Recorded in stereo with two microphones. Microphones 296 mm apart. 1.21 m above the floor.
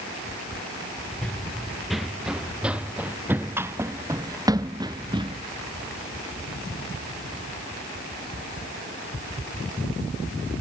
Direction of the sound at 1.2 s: Centre (ahead or behind).